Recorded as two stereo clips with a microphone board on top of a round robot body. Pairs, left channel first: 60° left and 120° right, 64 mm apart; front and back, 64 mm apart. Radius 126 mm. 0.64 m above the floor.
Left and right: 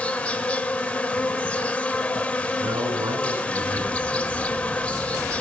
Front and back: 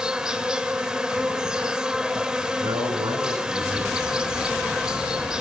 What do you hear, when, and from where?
0.0 s an insect: 115° left, 1.0 m
2.6 s a man speaking: 135° right, 6 m